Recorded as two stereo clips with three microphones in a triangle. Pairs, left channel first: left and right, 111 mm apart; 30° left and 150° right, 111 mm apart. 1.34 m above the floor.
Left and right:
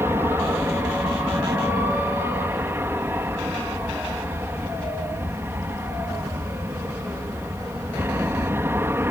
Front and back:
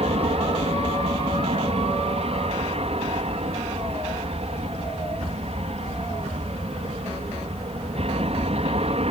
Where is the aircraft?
160° right.